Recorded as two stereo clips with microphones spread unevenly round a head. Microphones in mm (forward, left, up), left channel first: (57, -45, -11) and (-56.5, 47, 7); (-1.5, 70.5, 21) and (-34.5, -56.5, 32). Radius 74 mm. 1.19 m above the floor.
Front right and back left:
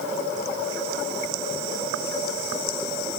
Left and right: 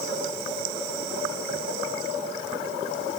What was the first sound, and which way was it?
Only background noise.